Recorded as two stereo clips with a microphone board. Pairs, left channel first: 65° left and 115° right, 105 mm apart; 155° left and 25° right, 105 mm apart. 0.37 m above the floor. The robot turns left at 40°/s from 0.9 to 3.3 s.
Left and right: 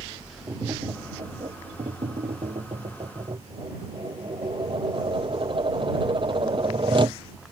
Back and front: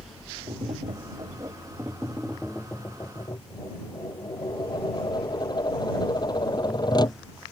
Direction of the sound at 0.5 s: 55° right.